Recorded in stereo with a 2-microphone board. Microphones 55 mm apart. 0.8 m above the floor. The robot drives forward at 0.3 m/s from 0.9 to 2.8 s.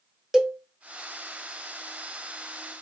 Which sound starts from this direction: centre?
A cowbell, at 0.3 s.